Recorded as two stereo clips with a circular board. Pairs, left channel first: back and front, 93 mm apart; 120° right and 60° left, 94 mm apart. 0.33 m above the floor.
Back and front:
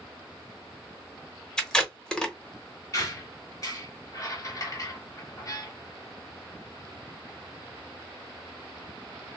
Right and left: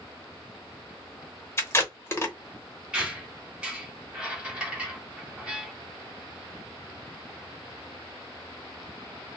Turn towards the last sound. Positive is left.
turn(degrees=140)